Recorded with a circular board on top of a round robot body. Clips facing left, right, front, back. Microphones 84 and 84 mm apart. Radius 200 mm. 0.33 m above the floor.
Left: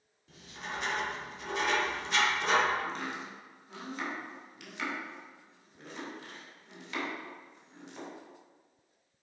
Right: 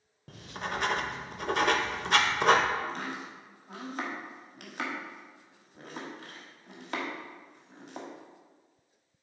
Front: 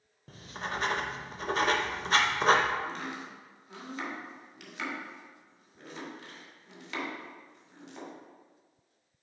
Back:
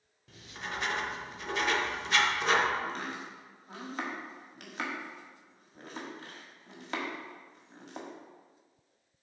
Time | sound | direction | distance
0.3 | writing | 55° right | 0.6 m
2.8 | chopping | 130° right | 1.6 m